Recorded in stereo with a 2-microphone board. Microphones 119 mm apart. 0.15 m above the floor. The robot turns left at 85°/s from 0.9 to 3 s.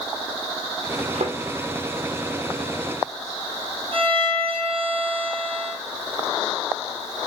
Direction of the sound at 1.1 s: 75° right (ahead or behind).